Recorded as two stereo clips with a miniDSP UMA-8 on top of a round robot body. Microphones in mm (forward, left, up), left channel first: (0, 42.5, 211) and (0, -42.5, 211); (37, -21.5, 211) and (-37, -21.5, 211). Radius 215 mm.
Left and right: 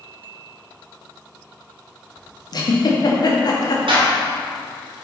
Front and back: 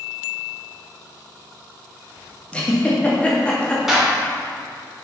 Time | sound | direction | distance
2.5 | a giggle | 75° left | 1.8 m
3.9 | a clap | 90° right | 2 m